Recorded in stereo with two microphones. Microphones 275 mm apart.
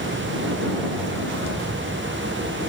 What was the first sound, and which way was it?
Only background noise.